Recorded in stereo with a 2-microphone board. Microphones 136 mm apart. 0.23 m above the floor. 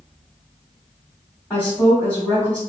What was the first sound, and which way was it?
A woman speaking, 15° left (ahead or behind).